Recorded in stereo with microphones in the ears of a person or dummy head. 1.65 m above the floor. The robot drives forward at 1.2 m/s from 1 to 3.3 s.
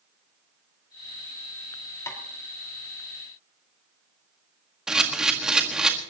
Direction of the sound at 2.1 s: 20° left (ahead or behind).